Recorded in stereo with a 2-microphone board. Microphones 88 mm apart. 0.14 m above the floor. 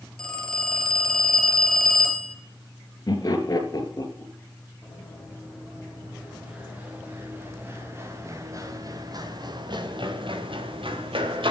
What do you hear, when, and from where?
0.2 s a phone ringing: 10° left (ahead or behind), 1.9 m
3.1 s laughter: 45° left (ahead or behind), 2.5 m
4.8 s running footsteps: 5° right (ahead or behind), 5 m; by 11.5 s 80° right, 2.5 m